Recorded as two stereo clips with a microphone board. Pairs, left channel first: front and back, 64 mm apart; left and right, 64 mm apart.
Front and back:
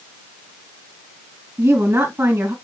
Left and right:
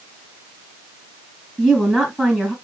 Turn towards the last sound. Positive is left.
turn(degrees=-175)